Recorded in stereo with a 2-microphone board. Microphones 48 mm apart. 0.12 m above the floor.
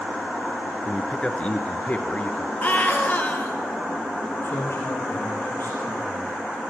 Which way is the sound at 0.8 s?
20° left (ahead or behind).